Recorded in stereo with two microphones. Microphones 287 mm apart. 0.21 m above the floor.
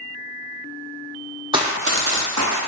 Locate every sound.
1.5 s running footsteps: 15° right (ahead or behind), 0.5 m; by 2.6 s 80° right, 0.9 m